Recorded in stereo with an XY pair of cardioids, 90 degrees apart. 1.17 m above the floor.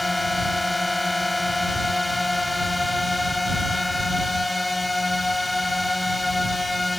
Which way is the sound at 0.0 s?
15° left.